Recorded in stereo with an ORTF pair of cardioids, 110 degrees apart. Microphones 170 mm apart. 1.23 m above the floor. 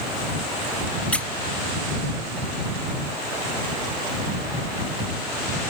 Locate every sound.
1.1 s a squeak: 5° left